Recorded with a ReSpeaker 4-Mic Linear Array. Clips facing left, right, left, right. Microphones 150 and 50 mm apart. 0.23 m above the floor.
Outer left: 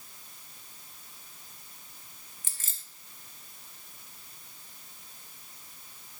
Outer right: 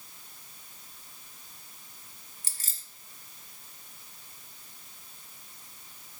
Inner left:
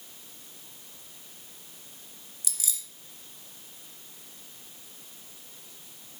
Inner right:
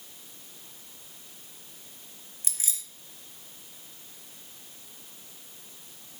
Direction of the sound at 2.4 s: 40° right (ahead or behind).